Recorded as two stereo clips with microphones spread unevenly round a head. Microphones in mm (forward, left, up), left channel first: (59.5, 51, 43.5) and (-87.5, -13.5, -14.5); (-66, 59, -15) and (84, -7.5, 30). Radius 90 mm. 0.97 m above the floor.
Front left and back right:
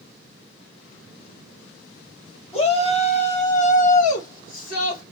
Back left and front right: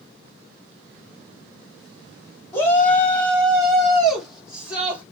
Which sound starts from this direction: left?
A shout, at 2.5 s.